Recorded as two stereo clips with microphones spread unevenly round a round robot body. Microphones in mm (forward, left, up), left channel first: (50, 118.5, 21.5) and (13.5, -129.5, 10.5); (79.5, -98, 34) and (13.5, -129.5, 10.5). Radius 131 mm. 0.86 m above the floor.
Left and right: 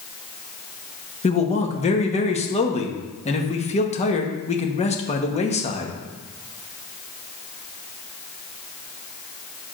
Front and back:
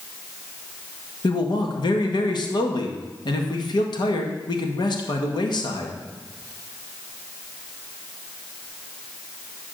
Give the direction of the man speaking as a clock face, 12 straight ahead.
11 o'clock.